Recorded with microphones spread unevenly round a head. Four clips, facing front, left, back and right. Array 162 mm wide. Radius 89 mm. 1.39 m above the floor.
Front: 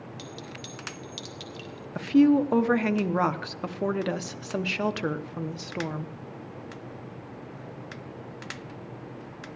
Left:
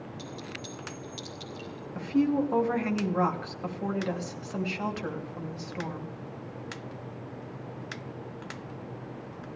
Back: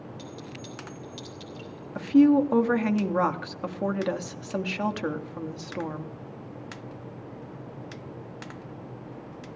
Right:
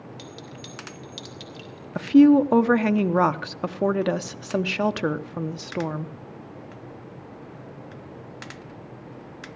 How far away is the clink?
About 1.9 m.